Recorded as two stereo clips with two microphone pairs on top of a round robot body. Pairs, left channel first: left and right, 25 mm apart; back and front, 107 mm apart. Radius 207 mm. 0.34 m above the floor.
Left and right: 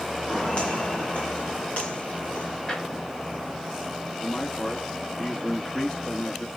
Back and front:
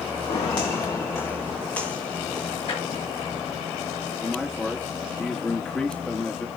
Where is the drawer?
150° left, 5.5 m.